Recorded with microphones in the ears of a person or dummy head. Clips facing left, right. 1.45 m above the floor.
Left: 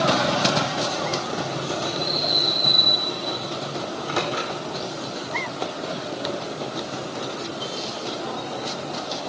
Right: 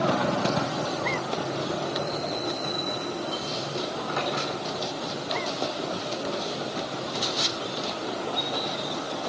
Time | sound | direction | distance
3.9 | a microwave | 50° left (ahead or behind) | 4 m